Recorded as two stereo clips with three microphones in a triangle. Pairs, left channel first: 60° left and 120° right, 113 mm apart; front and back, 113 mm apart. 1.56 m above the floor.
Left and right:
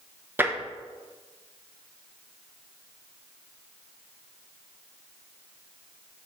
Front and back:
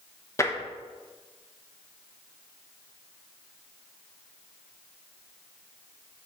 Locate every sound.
0.4 s tapping: 55° right, 0.8 m